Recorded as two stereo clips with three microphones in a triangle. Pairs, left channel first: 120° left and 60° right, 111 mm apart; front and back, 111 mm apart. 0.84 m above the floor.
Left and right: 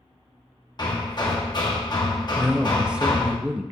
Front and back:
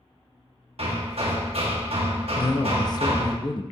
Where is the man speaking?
15° left, 0.6 m.